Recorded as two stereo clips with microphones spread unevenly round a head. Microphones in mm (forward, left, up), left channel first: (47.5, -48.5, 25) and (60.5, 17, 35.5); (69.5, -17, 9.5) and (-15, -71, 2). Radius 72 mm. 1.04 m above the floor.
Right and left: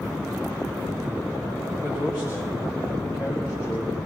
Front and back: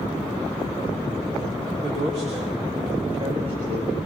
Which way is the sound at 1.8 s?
160° right.